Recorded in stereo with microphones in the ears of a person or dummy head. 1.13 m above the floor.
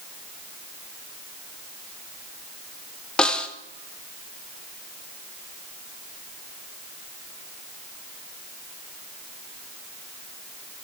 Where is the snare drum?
5° left (ahead or behind), 0.7 m.